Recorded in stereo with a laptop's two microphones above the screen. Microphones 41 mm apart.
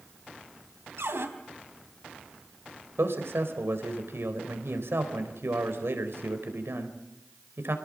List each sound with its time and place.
1.0 s a cupboard door: 80° right, 3 m
3.0 s a man speaking: 75° right (ahead or behind), 4 m